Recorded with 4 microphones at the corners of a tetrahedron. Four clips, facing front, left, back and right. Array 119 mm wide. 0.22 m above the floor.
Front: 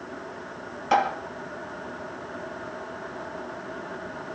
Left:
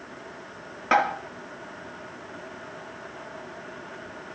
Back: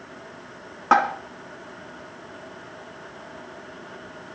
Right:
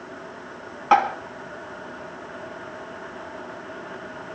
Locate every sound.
0.9 s tapping: 170° right, 2.5 m